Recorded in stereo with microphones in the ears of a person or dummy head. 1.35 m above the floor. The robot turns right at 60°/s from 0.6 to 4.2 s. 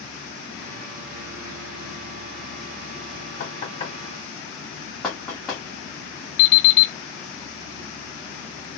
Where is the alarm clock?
45° left (ahead or behind), 1.0 m.